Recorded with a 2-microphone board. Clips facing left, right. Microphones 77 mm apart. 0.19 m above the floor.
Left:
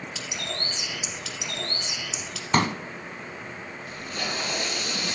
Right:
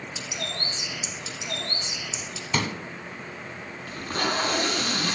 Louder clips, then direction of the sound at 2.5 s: Left 5 dB; 45° left (ahead or behind).